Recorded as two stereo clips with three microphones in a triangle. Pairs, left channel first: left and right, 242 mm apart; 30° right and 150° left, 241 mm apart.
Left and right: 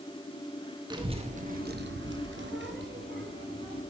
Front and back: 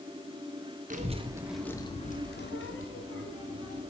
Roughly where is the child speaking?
Behind.